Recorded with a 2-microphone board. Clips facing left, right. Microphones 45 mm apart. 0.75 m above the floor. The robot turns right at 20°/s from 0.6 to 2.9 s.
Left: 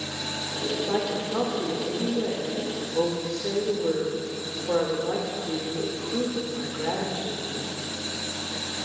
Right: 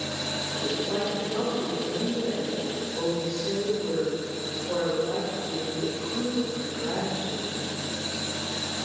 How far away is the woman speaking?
About 3 m.